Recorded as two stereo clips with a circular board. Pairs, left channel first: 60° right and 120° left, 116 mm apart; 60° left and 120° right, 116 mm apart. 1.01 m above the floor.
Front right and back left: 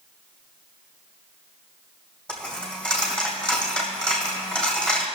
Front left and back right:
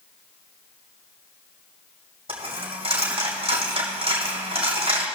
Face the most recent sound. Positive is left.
turn(degrees=-145)